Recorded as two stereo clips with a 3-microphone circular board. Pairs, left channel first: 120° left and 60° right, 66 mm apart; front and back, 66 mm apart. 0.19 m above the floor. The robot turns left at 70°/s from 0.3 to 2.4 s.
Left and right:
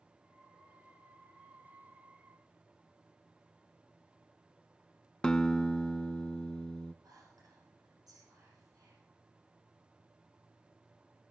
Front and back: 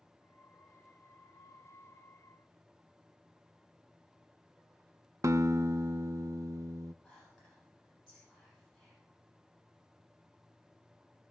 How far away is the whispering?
About 9 m.